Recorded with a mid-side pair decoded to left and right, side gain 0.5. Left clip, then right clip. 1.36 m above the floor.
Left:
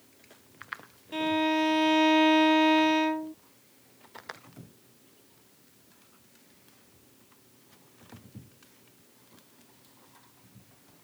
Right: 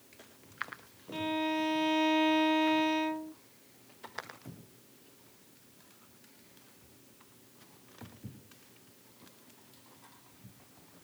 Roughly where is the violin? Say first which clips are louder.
Left 6 dB; ahead left.